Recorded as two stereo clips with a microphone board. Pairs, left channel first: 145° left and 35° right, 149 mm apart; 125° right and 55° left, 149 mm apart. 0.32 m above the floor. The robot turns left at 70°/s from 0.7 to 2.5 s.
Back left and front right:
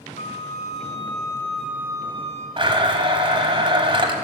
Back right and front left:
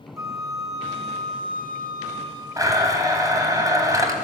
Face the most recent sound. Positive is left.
turn(degrees=0)